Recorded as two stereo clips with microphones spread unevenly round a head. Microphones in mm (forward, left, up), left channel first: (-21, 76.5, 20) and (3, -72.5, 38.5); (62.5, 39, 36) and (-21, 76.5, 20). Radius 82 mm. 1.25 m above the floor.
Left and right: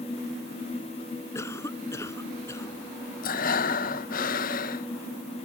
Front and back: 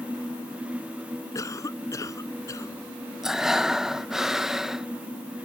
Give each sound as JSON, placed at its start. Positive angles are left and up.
{"t": 1.4, "sound": "a cough", "azimuth_deg": 25}
{"t": 3.2, "sound": "breathing", "azimuth_deg": 70}